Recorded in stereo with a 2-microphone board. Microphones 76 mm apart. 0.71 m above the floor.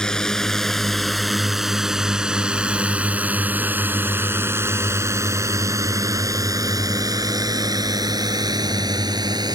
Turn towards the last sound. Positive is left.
turn(degrees=-75)  # may be behind; listen again after turning